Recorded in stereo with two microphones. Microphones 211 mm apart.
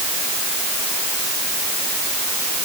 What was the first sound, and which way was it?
Only background noise.